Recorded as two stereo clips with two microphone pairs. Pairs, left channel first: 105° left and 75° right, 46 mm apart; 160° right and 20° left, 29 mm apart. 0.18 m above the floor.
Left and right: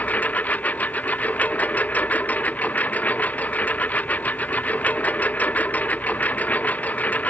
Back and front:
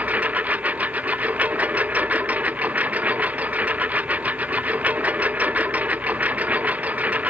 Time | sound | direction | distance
0.0 | a lawn mower | 50° left | ?